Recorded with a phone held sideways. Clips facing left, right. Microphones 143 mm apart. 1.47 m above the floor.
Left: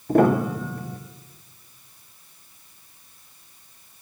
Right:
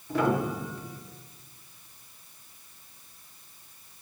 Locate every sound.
0.1 s a piano: 50° left (ahead or behind), 1.2 m